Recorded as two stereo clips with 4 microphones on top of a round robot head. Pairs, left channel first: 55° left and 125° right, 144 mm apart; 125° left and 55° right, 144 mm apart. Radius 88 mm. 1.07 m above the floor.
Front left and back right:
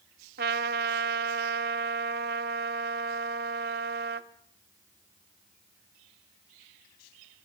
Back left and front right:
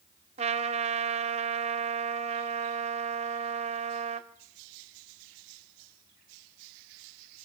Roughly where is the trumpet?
Right.